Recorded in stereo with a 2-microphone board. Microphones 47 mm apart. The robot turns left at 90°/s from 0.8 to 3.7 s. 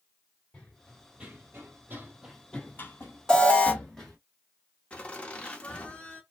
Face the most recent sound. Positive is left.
turn(degrees=25)  # may be behind; listen again after turning